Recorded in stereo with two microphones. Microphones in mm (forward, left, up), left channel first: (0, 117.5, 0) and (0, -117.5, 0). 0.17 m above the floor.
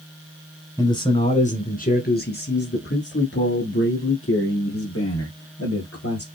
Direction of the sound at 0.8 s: 15° left (ahead or behind).